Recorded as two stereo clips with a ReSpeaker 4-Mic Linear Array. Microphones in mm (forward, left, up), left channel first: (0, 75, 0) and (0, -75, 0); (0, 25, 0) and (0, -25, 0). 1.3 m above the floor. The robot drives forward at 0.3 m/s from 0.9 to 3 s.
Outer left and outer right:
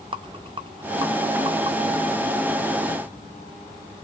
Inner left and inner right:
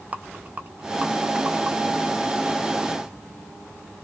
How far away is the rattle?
About 0.6 m.